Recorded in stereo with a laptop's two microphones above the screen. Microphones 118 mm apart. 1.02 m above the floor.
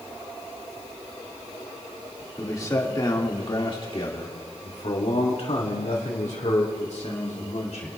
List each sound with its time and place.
2.4 s a man speaking: 25° left (ahead or behind), 2 m; by 7.9 s 80° left, 3 m